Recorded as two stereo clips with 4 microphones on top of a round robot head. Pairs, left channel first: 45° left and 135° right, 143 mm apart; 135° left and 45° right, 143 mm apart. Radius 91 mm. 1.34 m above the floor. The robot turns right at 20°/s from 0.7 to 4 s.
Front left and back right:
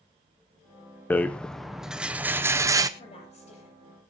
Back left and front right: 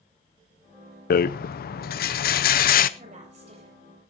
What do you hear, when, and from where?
1.1 s a rattle: 120° left, 0.6 m; by 2.9 s 160° left, 0.6 m
3.0 s a woman speaking: 5° right, 7 m; by 3.8 s 10° left, 7 m